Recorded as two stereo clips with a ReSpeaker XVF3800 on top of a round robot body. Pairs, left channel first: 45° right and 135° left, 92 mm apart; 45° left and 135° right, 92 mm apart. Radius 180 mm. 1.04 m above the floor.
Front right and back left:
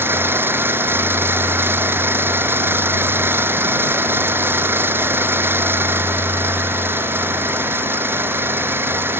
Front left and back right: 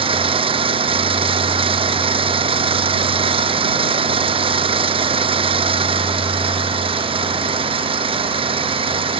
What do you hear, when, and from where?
0.0 s an engine running: 155° right